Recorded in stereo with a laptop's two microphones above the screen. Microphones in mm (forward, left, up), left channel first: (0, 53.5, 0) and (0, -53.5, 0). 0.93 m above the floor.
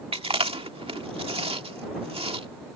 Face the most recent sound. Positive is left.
turn(degrees=-60)  # may be behind; listen again after turning